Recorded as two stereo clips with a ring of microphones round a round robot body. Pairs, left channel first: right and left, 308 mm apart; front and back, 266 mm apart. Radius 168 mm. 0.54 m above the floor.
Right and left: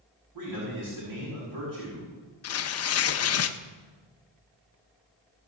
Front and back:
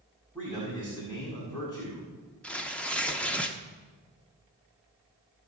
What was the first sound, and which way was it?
A man speaking, 80° left.